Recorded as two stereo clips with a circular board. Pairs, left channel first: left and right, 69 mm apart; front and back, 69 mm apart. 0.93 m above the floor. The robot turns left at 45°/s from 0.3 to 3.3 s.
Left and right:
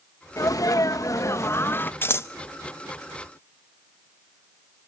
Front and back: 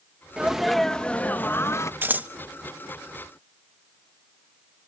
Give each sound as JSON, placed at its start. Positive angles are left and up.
{"t": 0.4, "sound": "a sneeze", "azimuth_deg": 105, "distance_m": 0.8}
{"t": 2.0, "sound": "scissors", "azimuth_deg": 130, "distance_m": 0.6}